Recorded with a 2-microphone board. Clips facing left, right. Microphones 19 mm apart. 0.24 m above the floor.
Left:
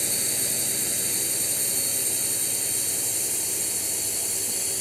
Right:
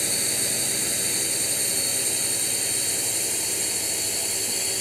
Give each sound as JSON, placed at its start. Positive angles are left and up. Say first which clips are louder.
{"t": 0.0, "sound": "a drone", "louder": "right 2 dB", "side_deg": -10}